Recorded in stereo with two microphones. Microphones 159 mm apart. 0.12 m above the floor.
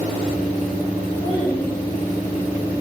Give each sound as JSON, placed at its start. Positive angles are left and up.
{"t": 1.2, "sound": "a child speaking", "side_deg": 30, "distance_m": 7.5}